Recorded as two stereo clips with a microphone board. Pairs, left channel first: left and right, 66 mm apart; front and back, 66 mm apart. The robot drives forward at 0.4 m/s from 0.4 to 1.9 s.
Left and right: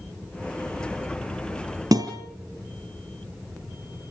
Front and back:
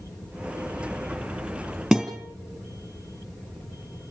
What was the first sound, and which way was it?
A guitar, 100° right.